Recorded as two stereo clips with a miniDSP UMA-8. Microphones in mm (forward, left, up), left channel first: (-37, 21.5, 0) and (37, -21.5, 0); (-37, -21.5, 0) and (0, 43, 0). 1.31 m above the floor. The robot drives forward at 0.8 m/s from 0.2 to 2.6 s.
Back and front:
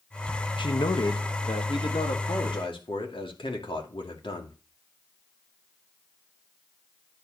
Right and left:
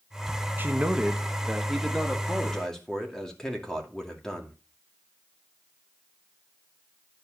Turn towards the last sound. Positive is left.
turn(degrees=155)